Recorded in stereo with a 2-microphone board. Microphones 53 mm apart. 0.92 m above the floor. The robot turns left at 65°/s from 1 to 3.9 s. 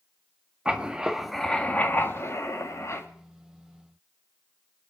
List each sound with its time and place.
0.7 s writing: 165° right, 1.8 m; by 3.1 s 60° left, 1.8 m